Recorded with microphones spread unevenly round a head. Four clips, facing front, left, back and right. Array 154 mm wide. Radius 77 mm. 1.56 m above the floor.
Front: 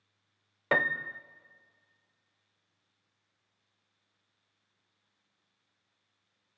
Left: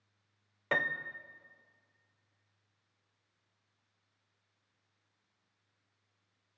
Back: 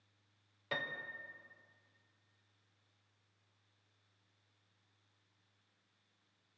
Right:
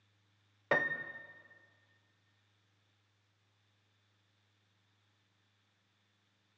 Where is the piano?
15° right, 0.6 m.